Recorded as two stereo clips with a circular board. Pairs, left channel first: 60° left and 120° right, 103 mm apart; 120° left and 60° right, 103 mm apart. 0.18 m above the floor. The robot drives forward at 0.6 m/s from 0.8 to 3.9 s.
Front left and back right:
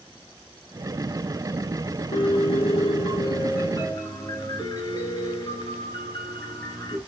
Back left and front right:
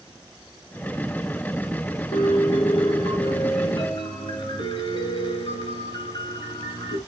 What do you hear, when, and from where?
2.1 s a piano: 85° left, 3 m; by 7.0 s 110° left, 3 m